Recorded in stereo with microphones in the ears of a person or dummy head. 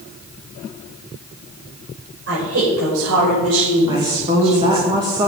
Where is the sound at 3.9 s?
25° right (ahead or behind), 1.5 m.